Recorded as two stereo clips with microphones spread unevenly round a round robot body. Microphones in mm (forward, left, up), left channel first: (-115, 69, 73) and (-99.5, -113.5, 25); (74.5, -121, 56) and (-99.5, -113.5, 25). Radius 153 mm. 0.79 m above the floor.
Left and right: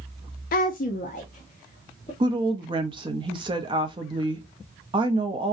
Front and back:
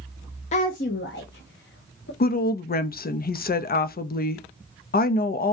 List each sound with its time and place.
0.5 s a woman speaking: 50° left, 0.5 m; by 2.1 s 30° left, 1.3 m
2.2 s a woman speaking: 35° right, 0.7 m